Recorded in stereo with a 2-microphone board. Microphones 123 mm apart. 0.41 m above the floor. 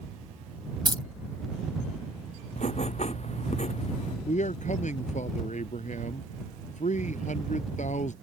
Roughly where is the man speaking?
Left.